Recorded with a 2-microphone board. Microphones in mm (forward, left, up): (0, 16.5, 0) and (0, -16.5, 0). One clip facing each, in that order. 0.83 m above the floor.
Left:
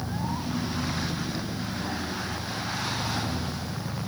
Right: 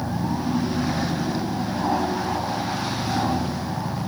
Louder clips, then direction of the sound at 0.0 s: Right 6 dB; 55° right (ahead or behind).